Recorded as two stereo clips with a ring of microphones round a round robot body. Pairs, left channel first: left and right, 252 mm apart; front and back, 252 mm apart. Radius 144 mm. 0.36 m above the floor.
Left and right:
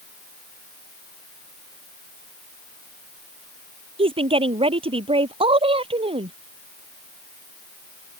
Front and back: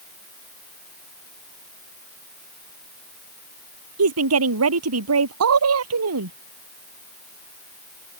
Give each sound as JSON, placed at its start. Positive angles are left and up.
{"t": 4.0, "sound": "a woman speaking", "azimuth_deg": -160}